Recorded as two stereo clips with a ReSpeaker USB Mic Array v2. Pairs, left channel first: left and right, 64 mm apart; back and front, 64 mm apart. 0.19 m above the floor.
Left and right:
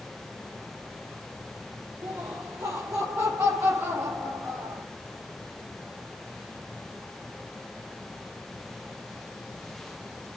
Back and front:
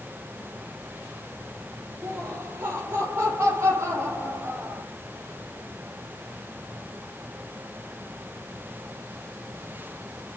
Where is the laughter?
60° right, 5 m; by 4.8 s 45° right, 6 m.